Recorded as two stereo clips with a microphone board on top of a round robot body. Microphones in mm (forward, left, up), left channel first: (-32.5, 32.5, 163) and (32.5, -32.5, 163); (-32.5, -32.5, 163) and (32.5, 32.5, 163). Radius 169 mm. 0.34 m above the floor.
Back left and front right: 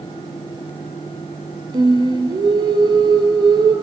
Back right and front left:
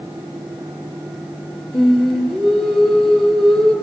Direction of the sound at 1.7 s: 45° right.